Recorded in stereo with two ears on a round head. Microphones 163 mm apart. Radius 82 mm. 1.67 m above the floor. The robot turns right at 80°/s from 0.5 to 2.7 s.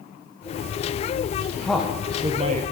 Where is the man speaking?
170° left, 0.7 m; by 2.6 s 110° right, 0.7 m.